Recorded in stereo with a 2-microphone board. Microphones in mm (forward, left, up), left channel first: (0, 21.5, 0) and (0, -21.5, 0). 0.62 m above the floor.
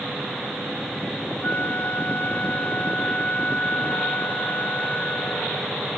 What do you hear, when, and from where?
1.4 s a flute: 45° left (ahead or behind), 1.5 m